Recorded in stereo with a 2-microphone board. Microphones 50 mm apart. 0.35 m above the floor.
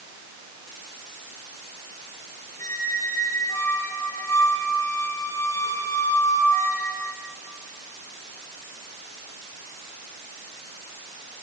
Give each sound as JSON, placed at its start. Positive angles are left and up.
{"t": 2.6, "sound": "a squeak", "side_deg": 85, "distance_m": 3.5}